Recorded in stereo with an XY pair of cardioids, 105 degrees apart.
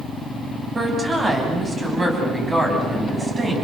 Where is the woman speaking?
25° right, 9.5 m.